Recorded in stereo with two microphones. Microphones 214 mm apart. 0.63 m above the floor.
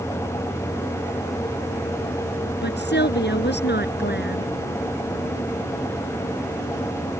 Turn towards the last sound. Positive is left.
turn(degrees=55)  # may be behind; listen again after turning